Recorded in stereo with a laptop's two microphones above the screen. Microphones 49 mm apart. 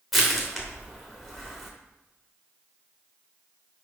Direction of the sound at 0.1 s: Centre (ahead or behind).